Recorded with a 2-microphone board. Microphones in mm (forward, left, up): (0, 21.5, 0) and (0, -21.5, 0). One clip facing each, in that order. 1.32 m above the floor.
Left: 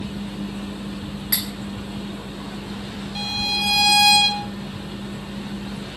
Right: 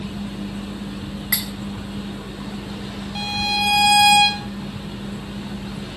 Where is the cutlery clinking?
50° right (ahead or behind), 4 m.